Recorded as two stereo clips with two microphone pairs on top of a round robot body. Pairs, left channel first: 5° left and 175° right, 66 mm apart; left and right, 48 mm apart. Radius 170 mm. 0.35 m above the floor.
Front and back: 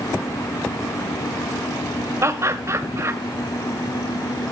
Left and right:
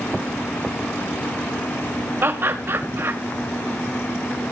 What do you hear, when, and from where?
2.2 s laughter: 130° right, 2 m